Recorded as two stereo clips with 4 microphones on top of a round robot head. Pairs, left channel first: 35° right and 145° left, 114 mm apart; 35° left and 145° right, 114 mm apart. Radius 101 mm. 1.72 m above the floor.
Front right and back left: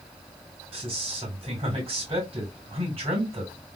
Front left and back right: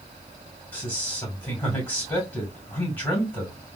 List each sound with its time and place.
0.7 s a man speaking: 110° left, 2 m